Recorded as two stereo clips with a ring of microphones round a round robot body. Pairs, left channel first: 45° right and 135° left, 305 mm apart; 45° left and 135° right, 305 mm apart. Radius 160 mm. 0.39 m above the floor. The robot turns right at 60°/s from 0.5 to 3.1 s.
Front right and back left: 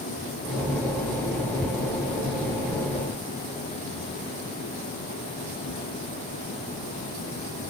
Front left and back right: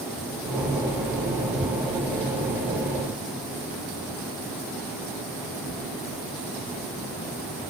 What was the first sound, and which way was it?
Only background noise.